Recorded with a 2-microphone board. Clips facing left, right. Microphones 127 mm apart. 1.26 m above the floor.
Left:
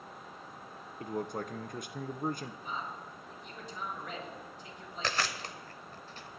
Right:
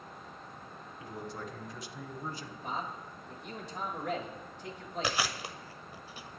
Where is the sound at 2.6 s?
75° right (ahead or behind), 3.5 m.